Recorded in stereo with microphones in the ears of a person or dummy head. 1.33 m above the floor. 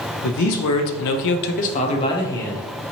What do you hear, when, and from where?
0.2 s a man speaking: 60° left (ahead or behind), 0.7 m; by 2.7 s 10° left (ahead or behind), 0.9 m